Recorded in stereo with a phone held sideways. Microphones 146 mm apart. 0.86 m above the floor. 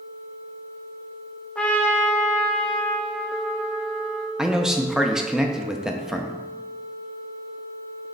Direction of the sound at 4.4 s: 5° right (ahead or behind).